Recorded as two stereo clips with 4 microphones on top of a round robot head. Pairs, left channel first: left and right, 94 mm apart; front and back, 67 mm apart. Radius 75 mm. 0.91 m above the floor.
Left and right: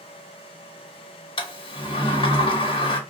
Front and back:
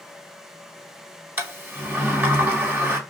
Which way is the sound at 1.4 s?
120° left.